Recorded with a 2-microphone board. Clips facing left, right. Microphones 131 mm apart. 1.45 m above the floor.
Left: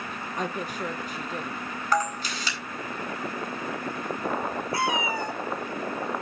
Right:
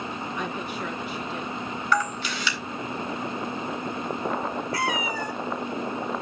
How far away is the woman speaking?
About 1.4 m.